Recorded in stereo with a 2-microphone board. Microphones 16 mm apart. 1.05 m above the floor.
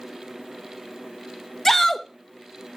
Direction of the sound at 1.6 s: 25° left (ahead or behind).